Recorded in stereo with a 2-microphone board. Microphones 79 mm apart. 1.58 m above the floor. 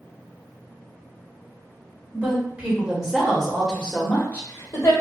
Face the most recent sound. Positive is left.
turn(degrees=45)  # may be behind; listen again after turning